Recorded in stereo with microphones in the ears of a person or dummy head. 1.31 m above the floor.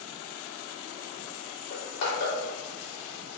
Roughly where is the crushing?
Left.